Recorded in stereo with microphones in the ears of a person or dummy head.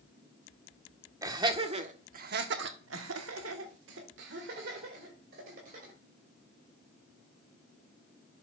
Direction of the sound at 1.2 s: 20° right (ahead or behind).